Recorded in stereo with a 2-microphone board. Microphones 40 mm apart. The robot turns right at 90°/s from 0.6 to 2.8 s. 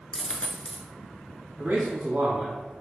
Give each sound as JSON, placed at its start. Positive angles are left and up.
{"t": 0.1, "sound": "a dropped coin", "side_deg": 25, "distance_m": 0.6}
{"t": 1.6, "sound": "a man speaking", "azimuth_deg": -110, "distance_m": 1.3}